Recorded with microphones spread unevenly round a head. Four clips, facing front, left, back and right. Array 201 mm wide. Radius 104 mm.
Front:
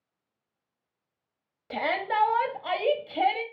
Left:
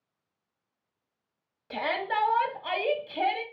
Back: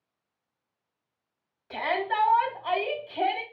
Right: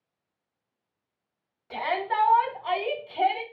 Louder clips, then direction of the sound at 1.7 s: Right 2 dB, even; 15° left.